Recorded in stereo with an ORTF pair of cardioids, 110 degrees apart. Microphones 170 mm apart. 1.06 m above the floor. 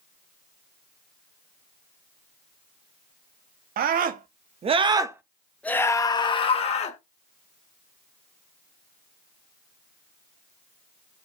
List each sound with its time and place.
3.8 s a scream: 60° right, 1.2 m; by 7.0 s 40° left, 1.5 m